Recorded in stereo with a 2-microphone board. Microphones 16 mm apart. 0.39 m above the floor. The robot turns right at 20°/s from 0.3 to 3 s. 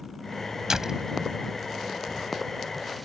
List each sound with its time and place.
0.7 s a door slam: 45° right (ahead or behind); by 1.1 s 50° right (ahead or behind)